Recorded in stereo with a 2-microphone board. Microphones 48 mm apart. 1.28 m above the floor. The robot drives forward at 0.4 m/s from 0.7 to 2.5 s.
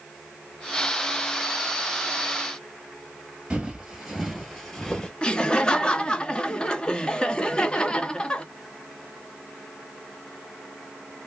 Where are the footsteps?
15° right (ahead or behind), 1.3 m; by 5.1 s 20° left (ahead or behind), 1.3 m.